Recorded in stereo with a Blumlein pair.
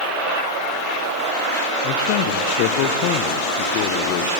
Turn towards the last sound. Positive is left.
turn(degrees=45)